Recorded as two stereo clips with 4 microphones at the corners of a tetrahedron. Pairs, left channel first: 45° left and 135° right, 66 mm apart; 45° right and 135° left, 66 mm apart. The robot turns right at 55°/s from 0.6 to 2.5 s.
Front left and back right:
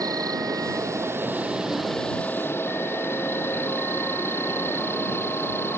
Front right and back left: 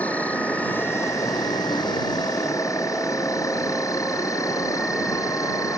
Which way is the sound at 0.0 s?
115° right.